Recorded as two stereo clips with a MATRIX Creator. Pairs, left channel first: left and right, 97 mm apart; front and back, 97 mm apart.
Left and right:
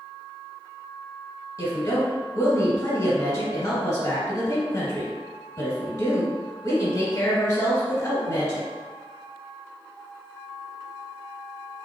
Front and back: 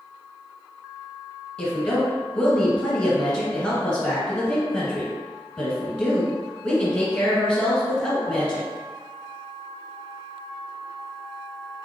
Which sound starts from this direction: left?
A woman speaking, at 1.6 s.